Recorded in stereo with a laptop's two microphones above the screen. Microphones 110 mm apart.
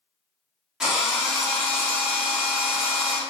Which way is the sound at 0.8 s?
5° right (ahead or behind).